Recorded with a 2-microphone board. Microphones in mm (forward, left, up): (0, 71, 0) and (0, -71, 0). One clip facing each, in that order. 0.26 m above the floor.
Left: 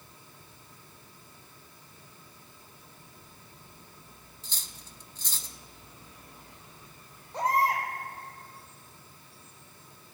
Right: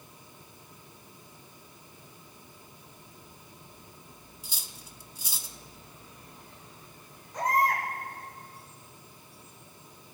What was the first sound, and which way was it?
Cutlery clinking, 10° right (ahead or behind).